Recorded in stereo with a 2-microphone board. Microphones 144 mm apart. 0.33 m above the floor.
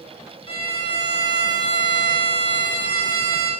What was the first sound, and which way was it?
A violin, 40° left (ahead or behind).